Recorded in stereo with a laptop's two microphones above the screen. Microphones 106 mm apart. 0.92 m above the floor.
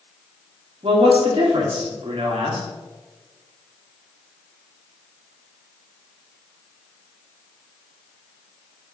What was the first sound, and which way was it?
A man speaking, 60° right (ahead or behind).